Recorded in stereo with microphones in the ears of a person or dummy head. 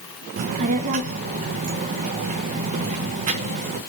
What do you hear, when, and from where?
0.4 s a child speaking: 45° right (ahead or behind), 0.9 m